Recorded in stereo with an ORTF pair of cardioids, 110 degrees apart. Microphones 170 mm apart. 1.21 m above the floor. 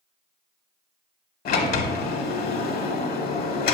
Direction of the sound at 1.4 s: 60° left.